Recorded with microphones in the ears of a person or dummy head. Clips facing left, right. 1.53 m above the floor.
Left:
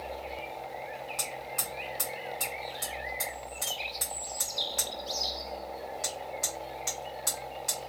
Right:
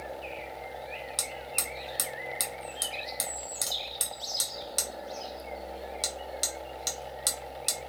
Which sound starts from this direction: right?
Hammering, at 1.2 s.